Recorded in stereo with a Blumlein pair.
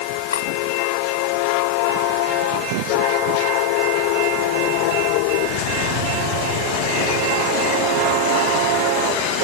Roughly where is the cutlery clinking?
Ahead left.